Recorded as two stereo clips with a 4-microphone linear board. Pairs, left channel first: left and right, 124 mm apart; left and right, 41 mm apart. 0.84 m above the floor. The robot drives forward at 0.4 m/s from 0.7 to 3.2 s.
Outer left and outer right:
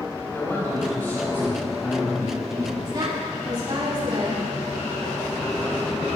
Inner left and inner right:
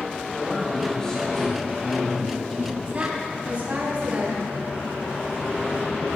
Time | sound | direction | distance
0.3 | a man speaking | 15° left (ahead or behind) | 2.5 m
2.9 | a woman speaking | 35° right (ahead or behind) | 7 m